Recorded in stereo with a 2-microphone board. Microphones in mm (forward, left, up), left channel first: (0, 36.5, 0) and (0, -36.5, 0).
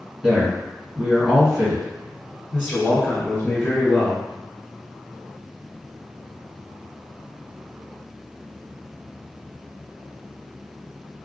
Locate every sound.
0.2 s a man speaking: 5° right (ahead or behind), 1.9 m
2.5 s a man speaking: 25° left (ahead or behind), 1.3 m